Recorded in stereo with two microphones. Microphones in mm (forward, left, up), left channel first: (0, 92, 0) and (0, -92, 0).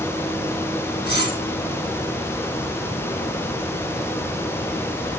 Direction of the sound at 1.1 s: 60° left (ahead or behind).